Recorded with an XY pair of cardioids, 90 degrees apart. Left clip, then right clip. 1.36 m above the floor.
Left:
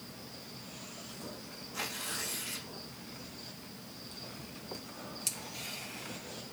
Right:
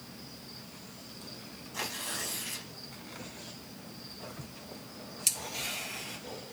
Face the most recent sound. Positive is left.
turn(degrees=-40)